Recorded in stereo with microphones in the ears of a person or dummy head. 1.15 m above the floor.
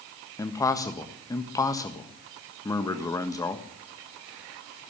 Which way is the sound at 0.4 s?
15° left (ahead or behind).